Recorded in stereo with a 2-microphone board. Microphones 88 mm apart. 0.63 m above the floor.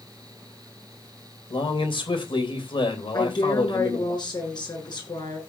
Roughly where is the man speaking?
Left.